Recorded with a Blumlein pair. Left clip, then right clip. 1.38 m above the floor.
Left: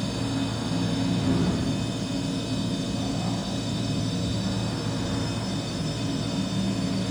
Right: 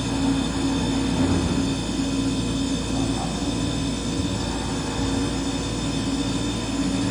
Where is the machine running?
35° right, 3 m.